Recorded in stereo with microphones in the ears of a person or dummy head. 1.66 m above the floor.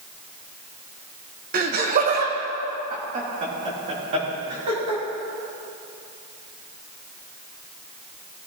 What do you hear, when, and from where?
1.5 s laughter: 50° right (ahead or behind), 1.2 m; by 5.0 s 35° right (ahead or behind), 4.5 m